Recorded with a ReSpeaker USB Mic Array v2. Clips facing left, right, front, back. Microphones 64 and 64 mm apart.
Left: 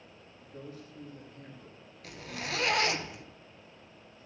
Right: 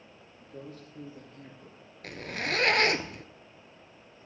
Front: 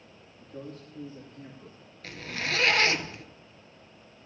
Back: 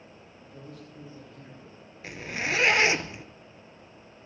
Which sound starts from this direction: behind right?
A zipper, at 2.0 s.